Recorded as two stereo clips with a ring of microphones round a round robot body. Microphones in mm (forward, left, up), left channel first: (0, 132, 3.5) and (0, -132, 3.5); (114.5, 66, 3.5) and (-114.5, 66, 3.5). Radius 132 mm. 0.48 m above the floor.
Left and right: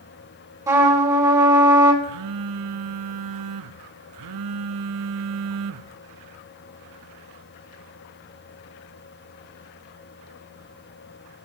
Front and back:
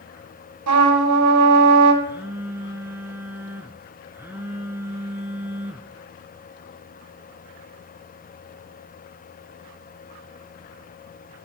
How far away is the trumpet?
About 3 m.